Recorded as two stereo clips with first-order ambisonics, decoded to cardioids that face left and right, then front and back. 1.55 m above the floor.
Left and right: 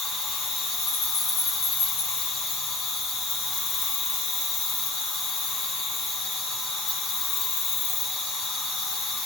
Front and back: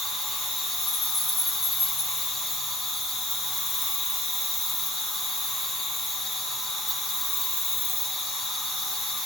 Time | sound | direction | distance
0.0 | an insect | 70° left | 1.8 m